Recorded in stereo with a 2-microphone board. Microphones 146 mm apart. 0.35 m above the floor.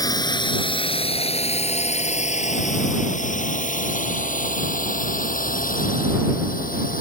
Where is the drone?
25° left (ahead or behind); by 7.0 s 75° left (ahead or behind).